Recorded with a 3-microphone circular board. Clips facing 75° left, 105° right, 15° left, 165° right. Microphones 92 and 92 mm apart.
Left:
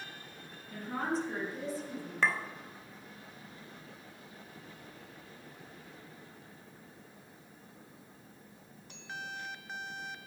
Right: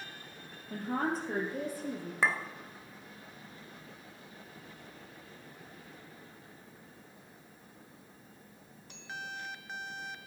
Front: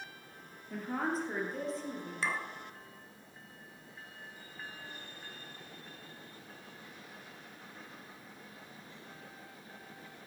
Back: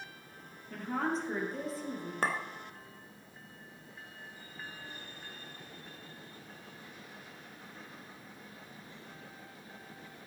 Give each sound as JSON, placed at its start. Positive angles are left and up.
{"t": 0.7, "sound": "a woman speaking", "azimuth_deg": -65, "distance_m": 3.0}
{"t": 2.2, "sound": "a clink", "azimuth_deg": 180, "distance_m": 1.2}